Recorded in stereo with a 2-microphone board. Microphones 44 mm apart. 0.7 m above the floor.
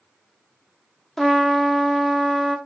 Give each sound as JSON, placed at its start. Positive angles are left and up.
{"t": 1.2, "sound": "a trumpet", "side_deg": 5, "distance_m": 0.8}